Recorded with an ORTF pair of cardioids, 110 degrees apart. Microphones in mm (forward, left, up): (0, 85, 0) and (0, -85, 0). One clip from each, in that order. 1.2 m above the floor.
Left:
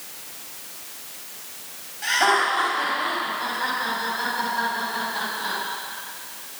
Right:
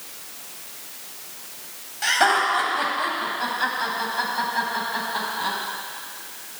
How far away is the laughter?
About 6.5 m.